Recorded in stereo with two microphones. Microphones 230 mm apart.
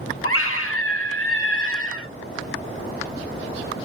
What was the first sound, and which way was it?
A scream, 70° left (ahead or behind).